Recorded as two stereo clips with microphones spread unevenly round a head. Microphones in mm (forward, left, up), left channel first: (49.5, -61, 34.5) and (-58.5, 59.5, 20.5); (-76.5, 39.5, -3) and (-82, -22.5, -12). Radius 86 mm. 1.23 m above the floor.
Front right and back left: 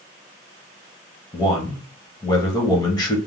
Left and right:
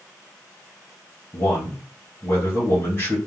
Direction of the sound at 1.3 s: 15° left.